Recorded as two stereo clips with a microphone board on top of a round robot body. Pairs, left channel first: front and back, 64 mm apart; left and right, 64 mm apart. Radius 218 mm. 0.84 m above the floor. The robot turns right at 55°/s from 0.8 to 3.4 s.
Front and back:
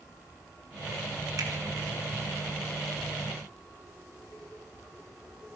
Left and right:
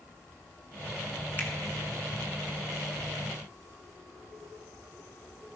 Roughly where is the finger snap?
Behind left.